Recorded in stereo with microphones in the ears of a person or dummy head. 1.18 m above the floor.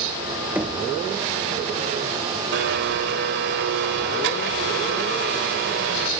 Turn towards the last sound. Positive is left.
turn(degrees=-60)  # may be behind; listen again after turning